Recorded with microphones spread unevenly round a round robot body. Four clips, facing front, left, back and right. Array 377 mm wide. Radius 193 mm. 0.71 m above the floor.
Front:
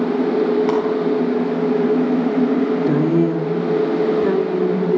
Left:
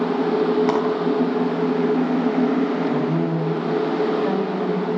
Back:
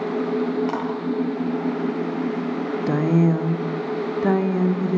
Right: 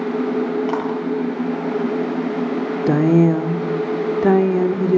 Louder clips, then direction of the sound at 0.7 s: Left 2 dB, front 8 dB; 40° left.